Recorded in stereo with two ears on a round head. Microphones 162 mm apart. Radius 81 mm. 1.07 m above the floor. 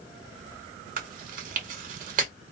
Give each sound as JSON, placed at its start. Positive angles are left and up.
{"t": 1.0, "sound": "chewing", "side_deg": -50, "distance_m": 1.1}